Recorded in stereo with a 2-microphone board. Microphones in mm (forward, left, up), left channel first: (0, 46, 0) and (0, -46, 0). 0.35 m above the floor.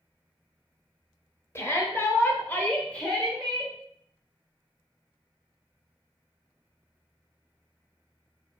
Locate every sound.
1.6 s a shout: 30° left (ahead or behind), 1.1 m; by 3.7 s centre (ahead or behind), 1.1 m